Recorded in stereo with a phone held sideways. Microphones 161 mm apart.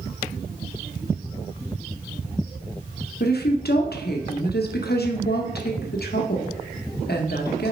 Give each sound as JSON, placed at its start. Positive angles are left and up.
{"t": 3.2, "sound": "a woman speaking", "side_deg": 75, "distance_m": 0.8}